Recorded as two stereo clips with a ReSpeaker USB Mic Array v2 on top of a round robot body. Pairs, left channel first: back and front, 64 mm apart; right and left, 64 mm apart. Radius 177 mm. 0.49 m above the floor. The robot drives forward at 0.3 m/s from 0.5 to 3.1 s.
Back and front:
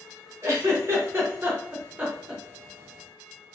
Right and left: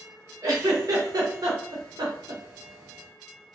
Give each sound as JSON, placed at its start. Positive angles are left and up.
{"t": 0.4, "sound": "a giggle", "azimuth_deg": 50, "distance_m": 1.1}